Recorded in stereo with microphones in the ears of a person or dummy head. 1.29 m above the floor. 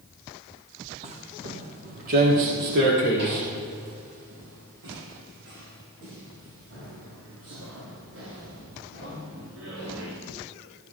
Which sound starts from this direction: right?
Footsteps, at 1.0 s.